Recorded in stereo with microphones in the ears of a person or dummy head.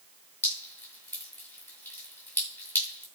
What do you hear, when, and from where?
0.4 s dripping: 10° left (ahead or behind), 7.5 m